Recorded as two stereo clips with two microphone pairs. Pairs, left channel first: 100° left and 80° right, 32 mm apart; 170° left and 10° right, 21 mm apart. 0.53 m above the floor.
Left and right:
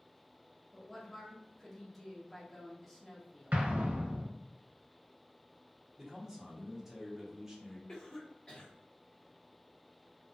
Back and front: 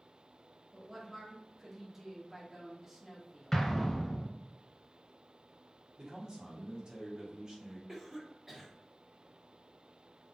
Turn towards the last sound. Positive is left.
turn(degrees=50)